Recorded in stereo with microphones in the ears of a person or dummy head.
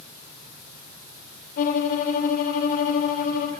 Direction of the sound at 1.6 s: 50° left (ahead or behind).